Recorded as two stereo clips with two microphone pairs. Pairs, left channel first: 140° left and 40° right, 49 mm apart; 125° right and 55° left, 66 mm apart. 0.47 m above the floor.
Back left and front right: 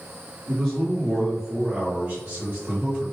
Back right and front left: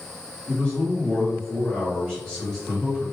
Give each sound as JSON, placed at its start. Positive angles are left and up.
{"t": 0.5, "sound": "a man speaking", "azimuth_deg": -155, "distance_m": 1.4}